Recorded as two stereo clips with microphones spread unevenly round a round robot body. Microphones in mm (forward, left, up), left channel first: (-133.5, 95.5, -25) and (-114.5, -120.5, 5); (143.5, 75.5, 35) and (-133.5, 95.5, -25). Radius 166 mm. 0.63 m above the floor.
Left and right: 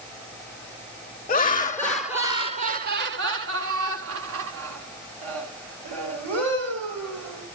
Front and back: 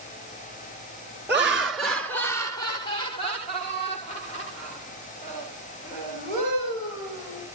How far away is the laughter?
About 0.8 m.